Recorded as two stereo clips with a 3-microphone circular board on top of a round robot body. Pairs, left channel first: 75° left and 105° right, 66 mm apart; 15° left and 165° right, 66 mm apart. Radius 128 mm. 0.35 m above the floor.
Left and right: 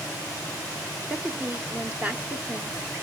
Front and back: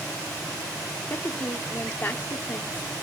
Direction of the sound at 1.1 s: 40° right.